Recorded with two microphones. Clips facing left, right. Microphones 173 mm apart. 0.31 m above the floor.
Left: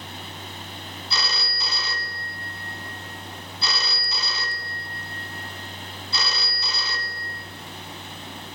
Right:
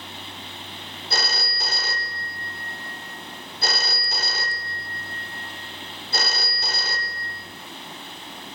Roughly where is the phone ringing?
Right.